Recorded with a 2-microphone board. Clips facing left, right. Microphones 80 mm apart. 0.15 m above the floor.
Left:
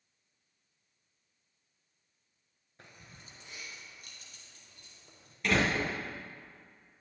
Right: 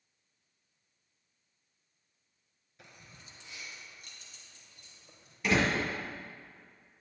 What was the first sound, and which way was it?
Keys jangling, 35° left (ahead or behind).